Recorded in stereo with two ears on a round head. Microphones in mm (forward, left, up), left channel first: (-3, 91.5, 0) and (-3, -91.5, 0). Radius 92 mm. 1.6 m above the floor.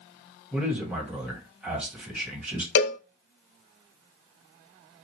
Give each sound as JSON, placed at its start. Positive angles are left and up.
{"t": 0.5, "sound": "a man speaking", "side_deg": -5, "distance_m": 1.7}
{"t": 2.8, "sound": "a cowbell", "side_deg": 60, "distance_m": 0.8}